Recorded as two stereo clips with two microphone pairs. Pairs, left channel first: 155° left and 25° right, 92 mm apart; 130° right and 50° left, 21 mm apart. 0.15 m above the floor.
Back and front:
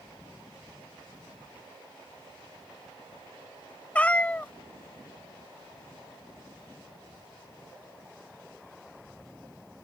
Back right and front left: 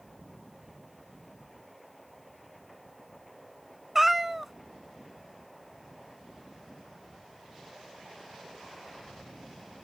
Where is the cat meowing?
110° left.